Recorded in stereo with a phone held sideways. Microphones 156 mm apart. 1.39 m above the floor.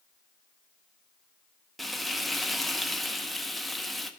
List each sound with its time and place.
1.8 s frying: centre (ahead or behind), 0.6 m